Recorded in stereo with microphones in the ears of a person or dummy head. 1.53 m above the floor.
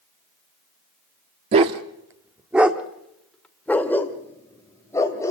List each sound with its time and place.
1.5 s a dog barking: 35° right (ahead or behind), 1.3 m; by 5.3 s 15° left (ahead or behind), 3 m